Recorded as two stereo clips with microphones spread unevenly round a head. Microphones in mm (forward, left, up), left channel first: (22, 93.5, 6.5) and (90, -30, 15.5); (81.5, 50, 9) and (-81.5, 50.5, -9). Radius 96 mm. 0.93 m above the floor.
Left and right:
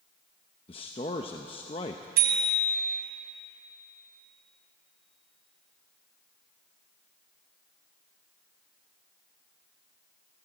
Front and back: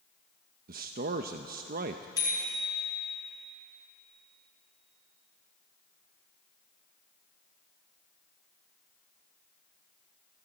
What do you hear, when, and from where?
0.7 s a man speaking: 170° left, 0.7 m
2.2 s a bicycle bell: 70° right, 4.5 m